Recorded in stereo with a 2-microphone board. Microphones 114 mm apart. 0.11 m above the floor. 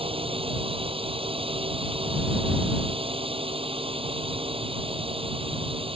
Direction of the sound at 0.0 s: 55° right (ahead or behind).